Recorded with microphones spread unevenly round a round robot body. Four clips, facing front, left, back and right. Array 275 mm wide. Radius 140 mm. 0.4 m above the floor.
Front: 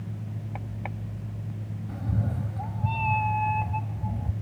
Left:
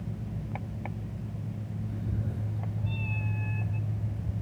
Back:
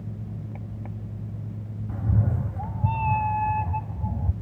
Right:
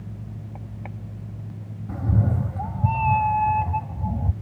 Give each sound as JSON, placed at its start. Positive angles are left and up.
{"t": 1.9, "sound": "a cat meowing", "azimuth_deg": -90}